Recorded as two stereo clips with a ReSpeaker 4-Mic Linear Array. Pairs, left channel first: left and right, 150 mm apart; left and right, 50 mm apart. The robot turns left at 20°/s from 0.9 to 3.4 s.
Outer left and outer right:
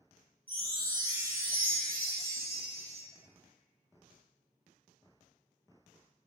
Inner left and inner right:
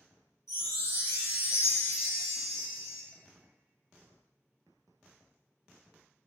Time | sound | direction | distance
0.5 | a chime | 90° left | 1.4 m